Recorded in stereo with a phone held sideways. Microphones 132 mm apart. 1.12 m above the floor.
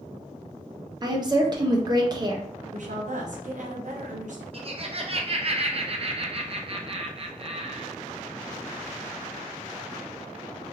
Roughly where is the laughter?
Right.